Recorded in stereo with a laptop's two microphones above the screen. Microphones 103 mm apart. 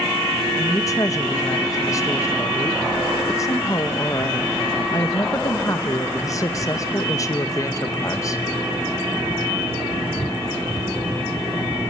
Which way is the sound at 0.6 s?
30° left (ahead or behind).